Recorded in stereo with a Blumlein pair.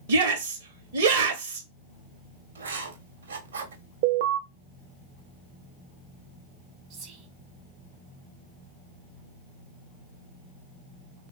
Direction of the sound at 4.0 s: 50° right.